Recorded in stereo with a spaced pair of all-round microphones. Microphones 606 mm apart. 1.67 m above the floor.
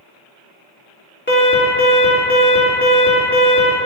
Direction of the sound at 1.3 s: 15° left (ahead or behind).